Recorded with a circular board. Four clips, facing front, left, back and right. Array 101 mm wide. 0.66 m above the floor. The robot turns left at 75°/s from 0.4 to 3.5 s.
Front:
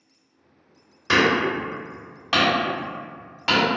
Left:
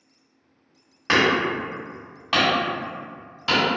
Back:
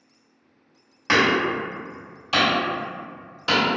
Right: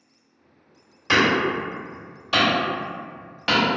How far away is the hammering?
About 1.7 m.